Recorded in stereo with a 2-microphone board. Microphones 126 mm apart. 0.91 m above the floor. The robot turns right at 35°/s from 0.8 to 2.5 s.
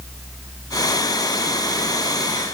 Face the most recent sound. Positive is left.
No sound to turn to.